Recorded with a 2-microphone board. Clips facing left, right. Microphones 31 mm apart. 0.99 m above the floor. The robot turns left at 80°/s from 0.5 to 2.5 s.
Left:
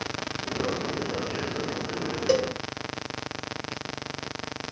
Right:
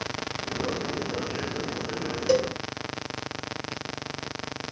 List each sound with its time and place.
2.3 s a cowbell: 10° left (ahead or behind), 0.8 m; by 2.4 s 5° right (ahead or behind), 0.8 m